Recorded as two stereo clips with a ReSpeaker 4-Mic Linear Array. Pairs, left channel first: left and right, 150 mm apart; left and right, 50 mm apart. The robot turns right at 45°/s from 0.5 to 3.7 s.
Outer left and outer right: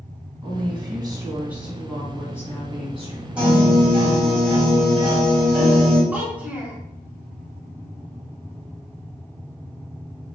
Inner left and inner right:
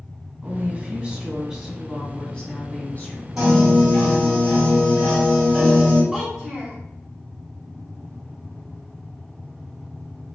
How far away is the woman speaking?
About 1.4 m.